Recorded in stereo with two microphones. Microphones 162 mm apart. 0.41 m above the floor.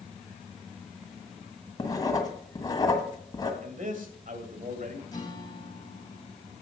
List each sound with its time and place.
1.8 s writing: 25° left (ahead or behind), 1.7 m
3.6 s a man speaking: 55° right (ahead or behind), 2 m
5.1 s a guitar: 25° left (ahead or behind), 3 m